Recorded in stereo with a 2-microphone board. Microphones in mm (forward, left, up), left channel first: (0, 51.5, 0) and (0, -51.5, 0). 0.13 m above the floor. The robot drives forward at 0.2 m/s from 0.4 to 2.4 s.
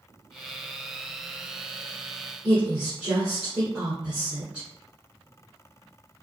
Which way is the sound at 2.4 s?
10° right (ahead or behind).